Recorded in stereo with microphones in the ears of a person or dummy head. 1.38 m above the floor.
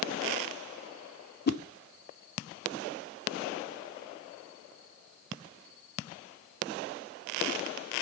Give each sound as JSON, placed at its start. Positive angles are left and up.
{"t": 1.5, "sound": "a whoosh", "side_deg": 50, "distance_m": 0.7}